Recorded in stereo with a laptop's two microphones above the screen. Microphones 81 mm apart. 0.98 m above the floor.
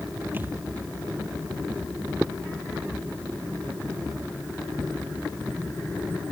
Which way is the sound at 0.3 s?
25° right (ahead or behind).